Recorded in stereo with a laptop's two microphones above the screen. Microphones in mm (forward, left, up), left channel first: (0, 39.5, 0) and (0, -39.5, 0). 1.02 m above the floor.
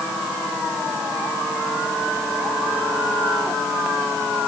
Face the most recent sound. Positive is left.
No sound to turn to.